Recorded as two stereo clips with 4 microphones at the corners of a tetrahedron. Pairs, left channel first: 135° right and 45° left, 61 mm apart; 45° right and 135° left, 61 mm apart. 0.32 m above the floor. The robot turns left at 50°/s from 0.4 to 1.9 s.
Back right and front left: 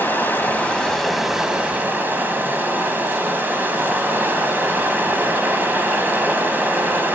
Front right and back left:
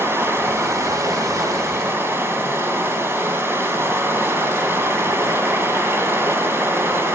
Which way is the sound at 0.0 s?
170° left.